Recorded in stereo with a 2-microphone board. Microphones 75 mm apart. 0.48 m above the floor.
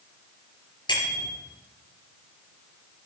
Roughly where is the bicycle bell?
Left.